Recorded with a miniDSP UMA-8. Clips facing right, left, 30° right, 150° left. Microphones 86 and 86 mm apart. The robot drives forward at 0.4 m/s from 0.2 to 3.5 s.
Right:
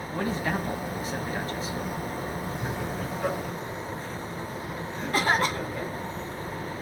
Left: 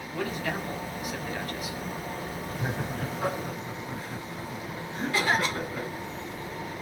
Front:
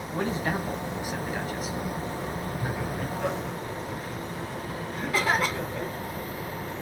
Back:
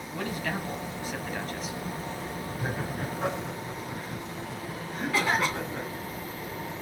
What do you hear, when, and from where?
0.1 s a man speaking: 60° right, 1.1 m; by 1.8 s 120° right, 1.1 m
2.6 s laughter: 110° left, 2.5 m; by 5.9 s 120° left, 2.5 m
5.1 s a cough: 120° right, 2 m